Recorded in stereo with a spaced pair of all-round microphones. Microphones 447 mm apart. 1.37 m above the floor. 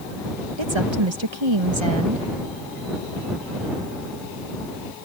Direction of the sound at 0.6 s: 80° right.